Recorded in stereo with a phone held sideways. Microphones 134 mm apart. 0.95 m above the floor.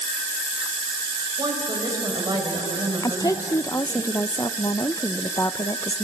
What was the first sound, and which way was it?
A woman speaking, 30° right (ahead or behind).